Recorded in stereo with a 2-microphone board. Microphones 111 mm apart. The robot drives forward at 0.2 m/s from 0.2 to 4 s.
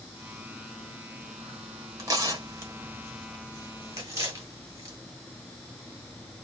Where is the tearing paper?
30° right (ahead or behind), 1.5 m; by 5.0 s 25° right (ahead or behind), 1.6 m.